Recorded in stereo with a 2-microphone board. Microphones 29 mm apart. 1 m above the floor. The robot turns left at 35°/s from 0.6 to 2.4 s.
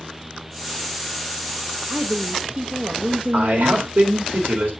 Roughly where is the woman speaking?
Right.